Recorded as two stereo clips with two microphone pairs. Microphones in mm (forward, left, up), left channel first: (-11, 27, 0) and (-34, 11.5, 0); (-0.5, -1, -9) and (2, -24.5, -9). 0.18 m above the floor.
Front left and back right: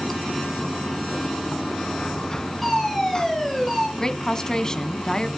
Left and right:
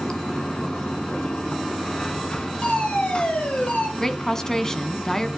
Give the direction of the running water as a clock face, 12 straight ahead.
9 o'clock.